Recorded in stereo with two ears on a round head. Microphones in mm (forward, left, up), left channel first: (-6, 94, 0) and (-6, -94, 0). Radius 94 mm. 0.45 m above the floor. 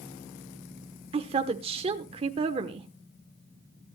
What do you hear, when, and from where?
1.1 s a woman speaking: 25° right (ahead or behind), 1.0 m